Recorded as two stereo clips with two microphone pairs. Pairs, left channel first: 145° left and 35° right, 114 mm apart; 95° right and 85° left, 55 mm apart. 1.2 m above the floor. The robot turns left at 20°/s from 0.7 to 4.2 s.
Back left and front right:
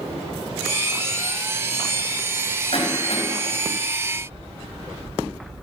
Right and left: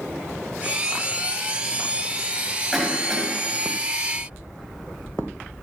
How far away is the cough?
About 8.5 m.